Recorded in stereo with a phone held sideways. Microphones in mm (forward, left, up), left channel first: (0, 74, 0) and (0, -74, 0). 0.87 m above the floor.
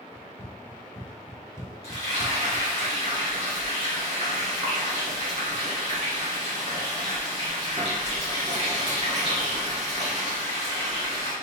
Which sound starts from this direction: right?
Frying, at 1.8 s.